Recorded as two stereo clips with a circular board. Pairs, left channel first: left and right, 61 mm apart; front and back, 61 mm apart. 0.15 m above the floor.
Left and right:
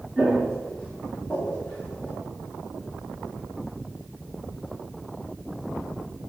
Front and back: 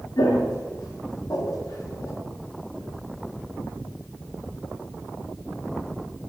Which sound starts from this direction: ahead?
Footsteps, at 0.2 s.